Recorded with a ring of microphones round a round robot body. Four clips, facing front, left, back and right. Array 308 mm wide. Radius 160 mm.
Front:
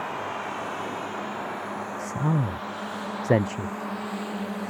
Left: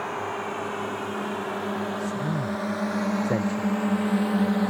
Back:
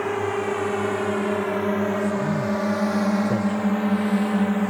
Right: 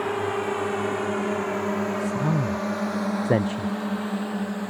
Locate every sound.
0.0 s a drone: 155° right; by 4.7 s 145° left
2.0 s a man speaking: 35° right